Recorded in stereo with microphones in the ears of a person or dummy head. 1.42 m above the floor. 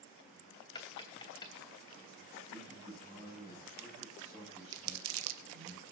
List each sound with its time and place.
0.8 s tapping: 30° left (ahead or behind), 2.5 m
2.5 s a man speaking: 30° right (ahead or behind), 9.5 m
4.7 s crumpling: 80° right, 1.8 m